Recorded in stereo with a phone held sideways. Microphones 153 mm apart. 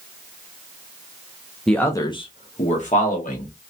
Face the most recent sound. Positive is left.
turn(degrees=60)  # may be behind; listen again after turning